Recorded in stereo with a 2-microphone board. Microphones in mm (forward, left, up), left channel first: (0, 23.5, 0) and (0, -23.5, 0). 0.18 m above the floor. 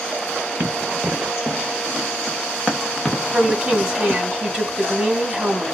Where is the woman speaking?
20° right (ahead or behind), 1.0 m.